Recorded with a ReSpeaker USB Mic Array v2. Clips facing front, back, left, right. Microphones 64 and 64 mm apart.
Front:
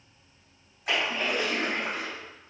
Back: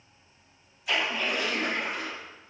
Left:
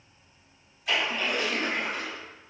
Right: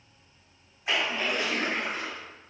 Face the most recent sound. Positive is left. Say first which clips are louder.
# even, even
turn(degrees=-30)